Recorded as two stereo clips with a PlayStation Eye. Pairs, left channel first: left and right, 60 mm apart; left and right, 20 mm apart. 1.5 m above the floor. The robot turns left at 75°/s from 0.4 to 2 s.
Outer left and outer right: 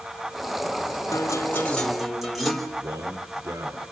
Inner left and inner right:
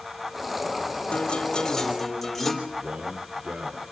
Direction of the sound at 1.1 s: 65° left.